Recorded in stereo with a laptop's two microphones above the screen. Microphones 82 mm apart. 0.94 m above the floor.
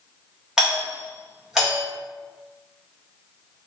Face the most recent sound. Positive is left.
turn(degrees=-10)  # may be behind; listen again after turning